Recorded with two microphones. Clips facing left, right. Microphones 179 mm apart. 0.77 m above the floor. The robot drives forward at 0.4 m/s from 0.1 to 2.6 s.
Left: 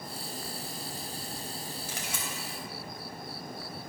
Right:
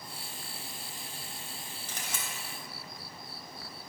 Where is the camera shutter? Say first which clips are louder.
Left 3 dB; 10° left (ahead or behind), 3 m.